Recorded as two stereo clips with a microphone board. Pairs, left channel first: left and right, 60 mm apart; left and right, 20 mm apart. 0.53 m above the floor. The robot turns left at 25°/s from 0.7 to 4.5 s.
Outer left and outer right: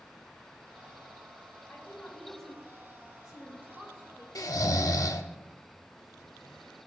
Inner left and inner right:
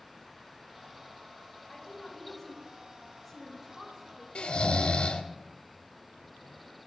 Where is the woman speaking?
30° left (ahead or behind), 5 m; by 4.2 s 35° right (ahead or behind), 5 m.